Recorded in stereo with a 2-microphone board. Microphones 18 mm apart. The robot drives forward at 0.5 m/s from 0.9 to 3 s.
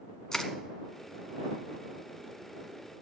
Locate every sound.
0.3 s crushing: 35° left (ahead or behind), 1.1 m